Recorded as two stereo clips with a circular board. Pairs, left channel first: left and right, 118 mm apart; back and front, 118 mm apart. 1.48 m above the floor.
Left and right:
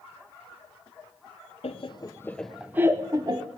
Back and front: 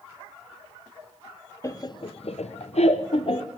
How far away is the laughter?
About 0.7 m.